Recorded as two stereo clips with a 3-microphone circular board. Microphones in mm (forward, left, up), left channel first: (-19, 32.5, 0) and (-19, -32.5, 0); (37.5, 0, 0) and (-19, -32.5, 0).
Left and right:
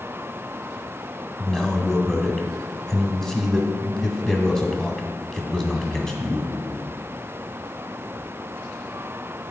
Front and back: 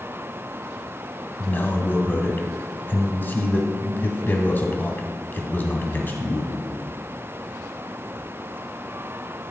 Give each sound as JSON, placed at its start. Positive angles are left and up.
{"t": 1.4, "sound": "a man speaking", "azimuth_deg": 20, "distance_m": 1.2}